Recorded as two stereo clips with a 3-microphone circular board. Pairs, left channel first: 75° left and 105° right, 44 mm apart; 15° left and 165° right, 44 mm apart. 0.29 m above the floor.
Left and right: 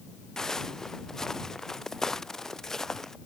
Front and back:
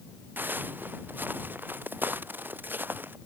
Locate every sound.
0.4 s footsteps: 150° left; by 3.2 s 155° left